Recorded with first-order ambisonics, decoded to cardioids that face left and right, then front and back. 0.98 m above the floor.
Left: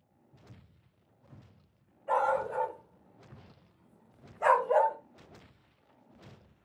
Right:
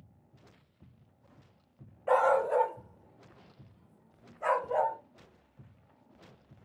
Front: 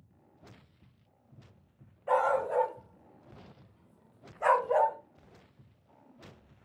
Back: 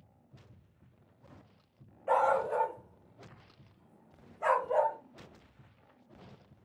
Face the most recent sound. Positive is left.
turn(degrees=65)